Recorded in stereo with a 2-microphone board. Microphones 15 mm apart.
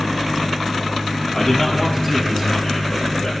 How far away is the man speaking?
About 6.5 m.